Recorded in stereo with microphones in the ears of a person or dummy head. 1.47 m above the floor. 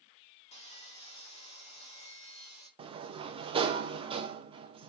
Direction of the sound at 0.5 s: 30° left (ahead or behind).